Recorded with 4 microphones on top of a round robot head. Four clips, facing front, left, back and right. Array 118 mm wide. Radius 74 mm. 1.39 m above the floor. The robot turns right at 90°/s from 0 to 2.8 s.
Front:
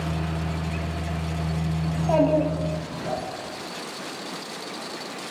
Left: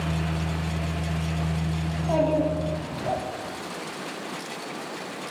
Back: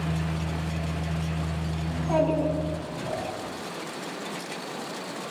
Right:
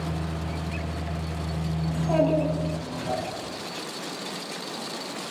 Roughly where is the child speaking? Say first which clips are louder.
Right 1 dB, front 4 dB; ahead.